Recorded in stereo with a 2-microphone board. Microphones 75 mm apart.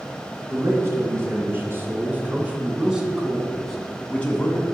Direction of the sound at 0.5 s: 40° right (ahead or behind).